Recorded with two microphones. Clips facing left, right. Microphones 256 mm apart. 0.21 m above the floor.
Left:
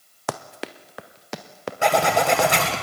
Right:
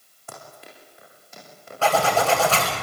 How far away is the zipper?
About 10 m.